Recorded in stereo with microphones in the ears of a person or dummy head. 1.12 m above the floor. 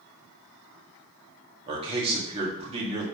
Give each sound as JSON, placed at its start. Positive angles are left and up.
{"t": 1.7, "sound": "a man speaking", "side_deg": -30, "distance_m": 2.0}